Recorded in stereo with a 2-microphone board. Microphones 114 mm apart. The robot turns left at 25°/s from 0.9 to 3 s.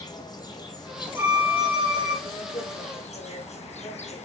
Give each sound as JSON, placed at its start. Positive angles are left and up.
{"t": 0.0, "sound": "an insect", "azimuth_deg": 140, "distance_m": 2.5}
{"t": 1.2, "sound": "a violin", "side_deg": -20, "distance_m": 4.0}